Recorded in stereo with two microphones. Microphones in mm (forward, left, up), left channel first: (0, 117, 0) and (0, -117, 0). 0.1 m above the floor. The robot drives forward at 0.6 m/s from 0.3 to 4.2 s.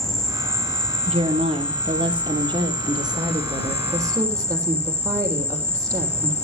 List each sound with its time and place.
0.0 s an insect: 15° left (ahead or behind), 4.5 m; by 6.5 s 25° left (ahead or behind), 2.5 m
1.1 s a woman speaking: 25° right (ahead or behind), 2 m; by 6.5 s 15° right (ahead or behind), 3.5 m